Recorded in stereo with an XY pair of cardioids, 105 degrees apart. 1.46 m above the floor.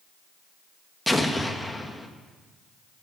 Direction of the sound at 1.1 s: 10° left.